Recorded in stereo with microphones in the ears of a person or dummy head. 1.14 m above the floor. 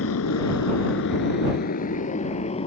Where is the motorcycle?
85° left; by 2.7 s 30° left (ahead or behind).